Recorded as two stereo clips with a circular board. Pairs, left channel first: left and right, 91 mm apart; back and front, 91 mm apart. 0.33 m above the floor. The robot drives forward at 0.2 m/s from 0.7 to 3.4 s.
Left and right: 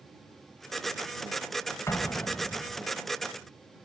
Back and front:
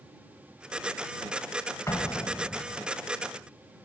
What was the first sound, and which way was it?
An explosion, 135° left.